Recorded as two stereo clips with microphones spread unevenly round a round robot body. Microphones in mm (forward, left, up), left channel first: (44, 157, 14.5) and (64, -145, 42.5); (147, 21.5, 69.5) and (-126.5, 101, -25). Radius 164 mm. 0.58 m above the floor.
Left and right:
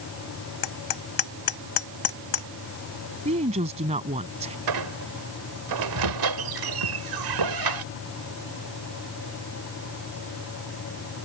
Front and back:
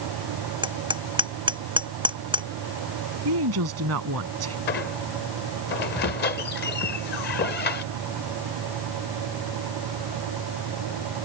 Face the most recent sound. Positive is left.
turn(degrees=-80)